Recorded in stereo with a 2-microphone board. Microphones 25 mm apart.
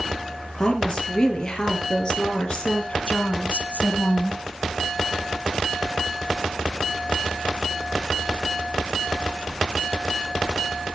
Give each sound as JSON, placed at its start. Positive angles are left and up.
{"t": 0.6, "sound": "a woman speaking", "side_deg": 25, "distance_m": 5.0}